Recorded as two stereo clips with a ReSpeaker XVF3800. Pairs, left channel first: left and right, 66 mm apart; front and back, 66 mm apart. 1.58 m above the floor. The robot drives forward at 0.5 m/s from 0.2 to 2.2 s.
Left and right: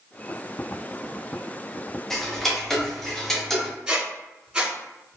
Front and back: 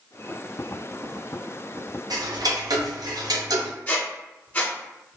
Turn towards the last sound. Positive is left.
turn(degrees=-30)